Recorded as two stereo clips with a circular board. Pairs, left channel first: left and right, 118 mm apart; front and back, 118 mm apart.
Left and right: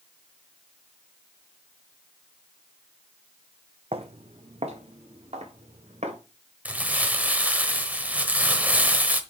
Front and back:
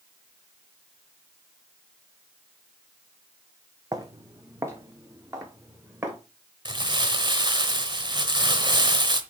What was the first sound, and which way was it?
Footsteps, 120° right.